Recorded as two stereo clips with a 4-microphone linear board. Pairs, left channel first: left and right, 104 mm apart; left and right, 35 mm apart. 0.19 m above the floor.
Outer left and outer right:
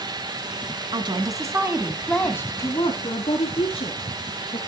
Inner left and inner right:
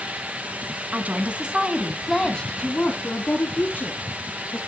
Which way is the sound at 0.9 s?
45° right (ahead or behind).